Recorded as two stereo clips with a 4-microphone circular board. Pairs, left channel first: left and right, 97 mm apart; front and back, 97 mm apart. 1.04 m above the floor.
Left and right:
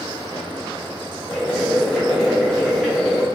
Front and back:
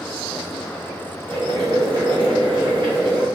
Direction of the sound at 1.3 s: 175° left.